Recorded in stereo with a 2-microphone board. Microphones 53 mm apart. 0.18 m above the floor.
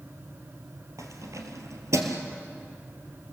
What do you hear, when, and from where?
1.0 s keys jangling: 75° right (ahead or behind), 2.5 m; by 2.2 s 65° right (ahead or behind), 2.5 m